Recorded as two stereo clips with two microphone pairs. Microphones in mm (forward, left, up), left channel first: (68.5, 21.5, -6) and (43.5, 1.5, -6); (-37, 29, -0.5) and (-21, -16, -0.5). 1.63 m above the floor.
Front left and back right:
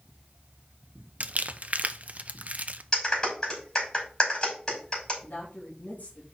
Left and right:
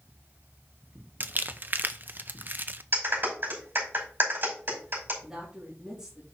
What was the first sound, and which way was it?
Crumpling, 110° right.